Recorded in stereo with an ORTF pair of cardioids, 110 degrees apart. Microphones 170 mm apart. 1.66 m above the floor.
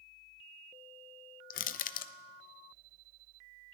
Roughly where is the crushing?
Ahead left.